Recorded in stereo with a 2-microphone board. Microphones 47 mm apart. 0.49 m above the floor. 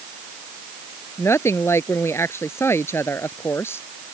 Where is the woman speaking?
65° left (ahead or behind); by 3.9 s 55° left (ahead or behind).